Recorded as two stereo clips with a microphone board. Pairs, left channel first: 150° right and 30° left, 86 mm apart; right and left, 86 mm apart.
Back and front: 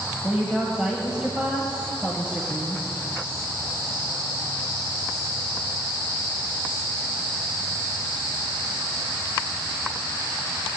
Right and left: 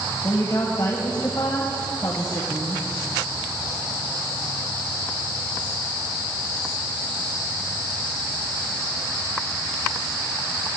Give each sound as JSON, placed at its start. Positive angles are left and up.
{"t": 0.2, "sound": "a woman speaking", "azimuth_deg": -45, "distance_m": 1.3}